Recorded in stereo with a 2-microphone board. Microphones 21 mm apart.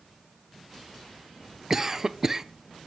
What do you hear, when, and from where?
1.7 s a cough: 20° right (ahead or behind), 0.7 m